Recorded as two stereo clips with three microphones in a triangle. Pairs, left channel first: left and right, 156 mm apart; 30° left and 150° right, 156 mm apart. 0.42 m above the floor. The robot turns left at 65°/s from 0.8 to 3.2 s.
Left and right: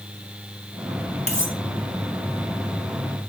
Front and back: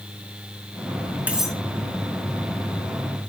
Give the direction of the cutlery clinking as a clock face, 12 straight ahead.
8 o'clock.